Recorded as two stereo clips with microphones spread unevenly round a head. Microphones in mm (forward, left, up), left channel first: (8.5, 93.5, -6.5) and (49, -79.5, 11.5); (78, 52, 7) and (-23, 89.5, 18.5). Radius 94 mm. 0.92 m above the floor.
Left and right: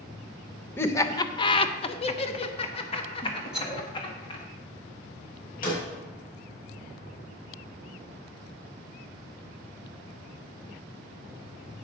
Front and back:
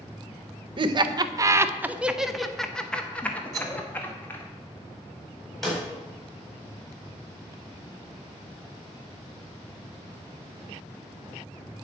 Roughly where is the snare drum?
Left.